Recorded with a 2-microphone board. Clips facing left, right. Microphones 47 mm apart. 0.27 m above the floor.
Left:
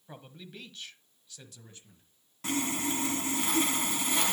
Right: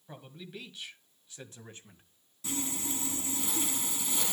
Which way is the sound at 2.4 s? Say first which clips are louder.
Left 6 dB; 60° left (ahead or behind).